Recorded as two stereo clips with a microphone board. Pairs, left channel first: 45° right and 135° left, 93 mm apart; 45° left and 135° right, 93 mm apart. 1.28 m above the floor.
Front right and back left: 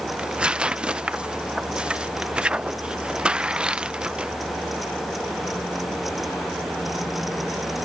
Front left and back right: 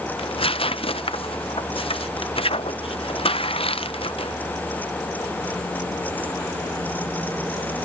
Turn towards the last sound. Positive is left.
turn(degrees=55)